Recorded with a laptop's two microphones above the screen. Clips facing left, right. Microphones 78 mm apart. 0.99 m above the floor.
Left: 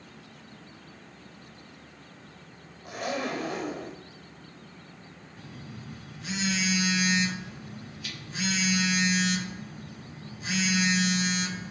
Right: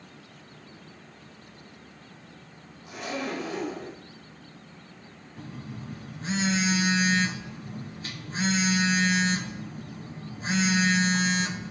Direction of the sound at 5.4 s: 35° right (ahead or behind).